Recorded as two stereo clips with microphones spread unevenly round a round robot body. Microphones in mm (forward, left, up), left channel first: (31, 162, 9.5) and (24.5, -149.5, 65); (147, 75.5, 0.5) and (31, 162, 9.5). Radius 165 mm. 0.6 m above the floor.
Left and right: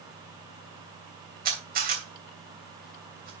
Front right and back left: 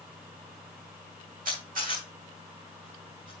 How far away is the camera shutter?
About 3 m.